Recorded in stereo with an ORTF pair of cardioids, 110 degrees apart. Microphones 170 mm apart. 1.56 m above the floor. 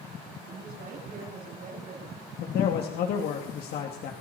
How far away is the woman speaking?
About 8 m.